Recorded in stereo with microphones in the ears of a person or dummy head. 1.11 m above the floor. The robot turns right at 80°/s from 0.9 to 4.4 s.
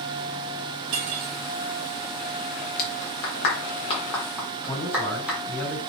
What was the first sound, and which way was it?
Cutlery clinking, 80° right.